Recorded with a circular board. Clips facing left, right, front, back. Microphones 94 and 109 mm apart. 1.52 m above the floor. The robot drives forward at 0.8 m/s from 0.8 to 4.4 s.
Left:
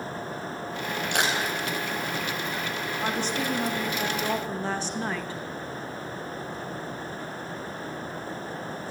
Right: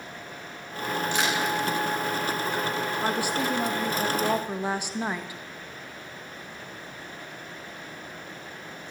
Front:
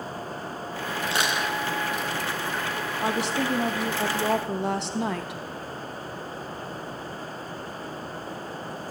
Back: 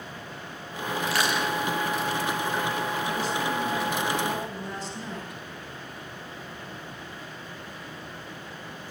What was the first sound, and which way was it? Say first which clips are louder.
Crushing: left 1 dB, even; 65° left.